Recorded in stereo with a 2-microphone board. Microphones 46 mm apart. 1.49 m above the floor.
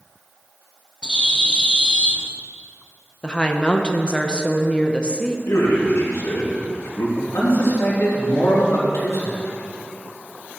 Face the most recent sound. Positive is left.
turn(degrees=85)